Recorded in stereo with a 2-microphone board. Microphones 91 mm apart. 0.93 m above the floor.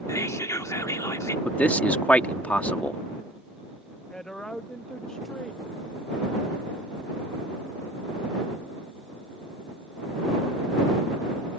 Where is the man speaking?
15° left (ahead or behind).